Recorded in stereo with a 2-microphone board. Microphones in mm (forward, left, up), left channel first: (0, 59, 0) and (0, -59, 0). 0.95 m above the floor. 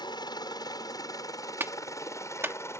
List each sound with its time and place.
0.0 s a helicopter: 35° left (ahead or behind); by 2.8 s 20° left (ahead or behind)
1.6 s a clap: 20° right (ahead or behind)